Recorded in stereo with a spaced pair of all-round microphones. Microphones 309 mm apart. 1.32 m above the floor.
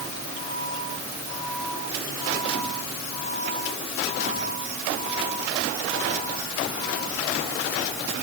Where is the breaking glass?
I don't hear breaking glass.